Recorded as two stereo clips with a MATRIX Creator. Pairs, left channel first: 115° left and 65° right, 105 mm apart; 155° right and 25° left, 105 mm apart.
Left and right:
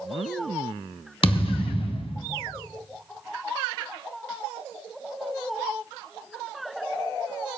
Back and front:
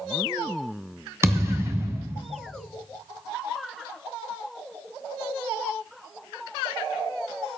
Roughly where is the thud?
Left.